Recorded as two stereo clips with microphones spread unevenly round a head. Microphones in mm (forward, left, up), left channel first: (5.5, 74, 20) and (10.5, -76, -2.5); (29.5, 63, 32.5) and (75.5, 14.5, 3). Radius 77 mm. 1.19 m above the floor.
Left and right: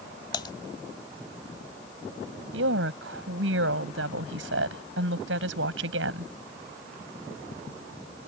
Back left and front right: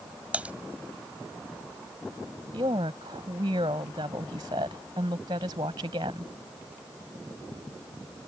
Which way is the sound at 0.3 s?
35° left.